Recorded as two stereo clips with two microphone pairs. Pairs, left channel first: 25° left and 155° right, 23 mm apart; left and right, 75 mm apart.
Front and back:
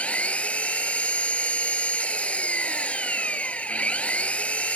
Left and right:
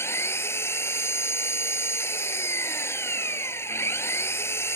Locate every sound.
0.0 s an engine running: 35° left